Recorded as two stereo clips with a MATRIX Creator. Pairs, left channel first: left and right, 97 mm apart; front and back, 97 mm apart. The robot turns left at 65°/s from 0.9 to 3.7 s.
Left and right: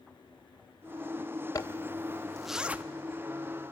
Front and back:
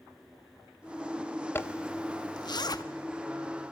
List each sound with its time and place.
1.6 s a zipper: 55° left, 0.7 m; by 2.8 s 25° right, 0.7 m